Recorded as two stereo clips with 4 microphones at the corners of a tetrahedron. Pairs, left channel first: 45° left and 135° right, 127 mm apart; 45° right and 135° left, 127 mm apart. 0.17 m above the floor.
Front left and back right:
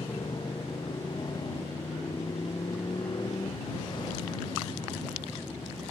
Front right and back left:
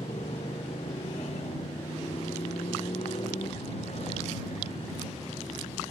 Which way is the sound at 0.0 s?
10° right.